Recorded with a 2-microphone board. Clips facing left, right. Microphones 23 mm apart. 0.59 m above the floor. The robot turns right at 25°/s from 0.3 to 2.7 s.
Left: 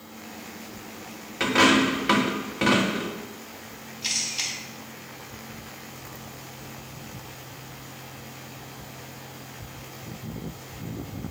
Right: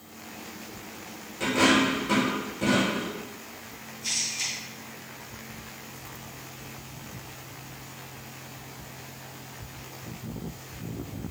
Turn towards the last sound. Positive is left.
turn(degrees=60)  # may be behind; listen again after turning